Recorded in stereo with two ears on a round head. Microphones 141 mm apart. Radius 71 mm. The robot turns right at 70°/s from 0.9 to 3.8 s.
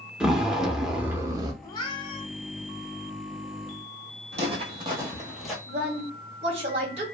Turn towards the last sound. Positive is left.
turn(degrees=-40)  # may be behind; listen again after turning